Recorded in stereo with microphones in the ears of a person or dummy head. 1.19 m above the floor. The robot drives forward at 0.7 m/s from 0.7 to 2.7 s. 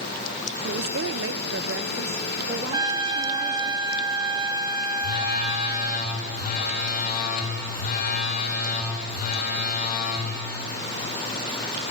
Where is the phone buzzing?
55° left (ahead or behind), 3.5 m.